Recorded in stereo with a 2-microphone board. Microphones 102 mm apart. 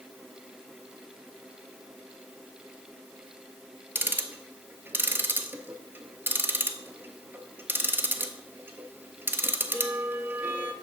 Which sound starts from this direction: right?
Ticking, at 4.0 s.